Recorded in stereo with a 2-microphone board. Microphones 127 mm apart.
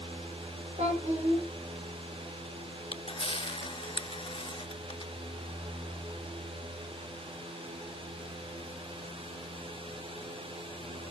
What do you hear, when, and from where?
0.8 s a child speaking: 65° right (ahead or behind), 4.5 m
2.9 s a camera shutter: 45° left (ahead or behind), 0.6 m